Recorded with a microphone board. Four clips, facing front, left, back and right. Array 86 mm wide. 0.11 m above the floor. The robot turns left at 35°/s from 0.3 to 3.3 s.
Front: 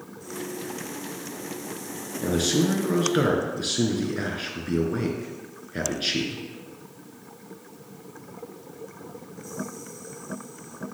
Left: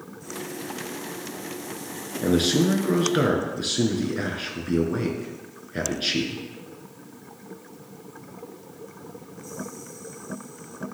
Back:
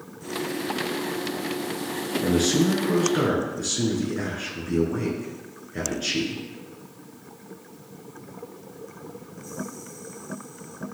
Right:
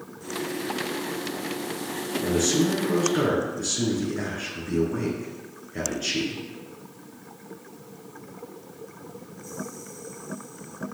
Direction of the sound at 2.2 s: 90° left.